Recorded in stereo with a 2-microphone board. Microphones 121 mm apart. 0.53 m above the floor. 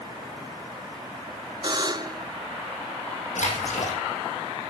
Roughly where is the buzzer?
Right.